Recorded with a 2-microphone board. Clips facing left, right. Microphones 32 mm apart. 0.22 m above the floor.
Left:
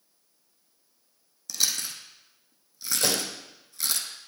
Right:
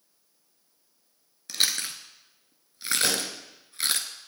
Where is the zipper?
I don't hear a zipper.